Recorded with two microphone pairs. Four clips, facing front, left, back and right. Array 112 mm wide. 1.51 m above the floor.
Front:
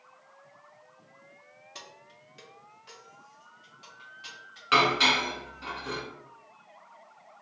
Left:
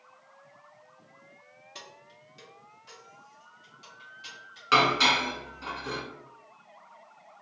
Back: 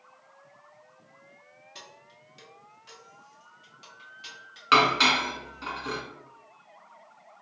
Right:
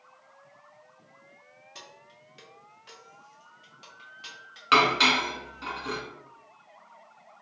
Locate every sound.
1.8 s keys jangling: 20° left, 0.7 m; by 5.7 s 85° right, 2 m
4.7 s dishes clattering: 160° right, 1.1 m